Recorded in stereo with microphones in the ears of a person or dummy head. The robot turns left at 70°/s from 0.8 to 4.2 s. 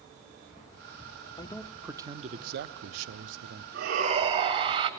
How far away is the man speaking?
About 0.6 m.